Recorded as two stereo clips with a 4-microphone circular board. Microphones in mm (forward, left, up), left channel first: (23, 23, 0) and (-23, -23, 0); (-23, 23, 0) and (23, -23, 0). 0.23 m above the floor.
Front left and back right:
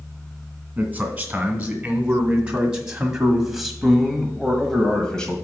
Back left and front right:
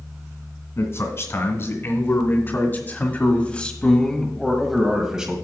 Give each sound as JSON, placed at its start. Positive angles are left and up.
{"t": 0.8, "sound": "a man speaking", "azimuth_deg": 160, "distance_m": 2.5}